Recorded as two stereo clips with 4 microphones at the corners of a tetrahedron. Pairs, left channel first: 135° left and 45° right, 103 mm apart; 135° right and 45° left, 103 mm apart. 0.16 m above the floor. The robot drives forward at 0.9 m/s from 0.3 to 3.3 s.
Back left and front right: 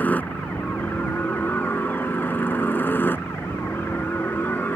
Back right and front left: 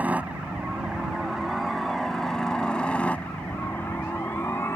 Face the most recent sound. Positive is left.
turn(degrees=-170)